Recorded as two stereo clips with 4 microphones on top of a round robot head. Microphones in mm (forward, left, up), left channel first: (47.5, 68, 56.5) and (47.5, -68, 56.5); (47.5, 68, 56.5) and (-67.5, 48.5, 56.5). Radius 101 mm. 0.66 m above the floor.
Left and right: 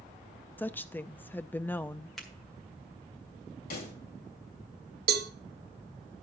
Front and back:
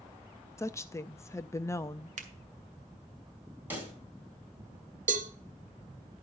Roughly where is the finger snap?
Behind.